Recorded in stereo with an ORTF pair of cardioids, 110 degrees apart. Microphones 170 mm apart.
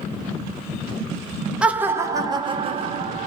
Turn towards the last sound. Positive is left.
turn(degrees=-50)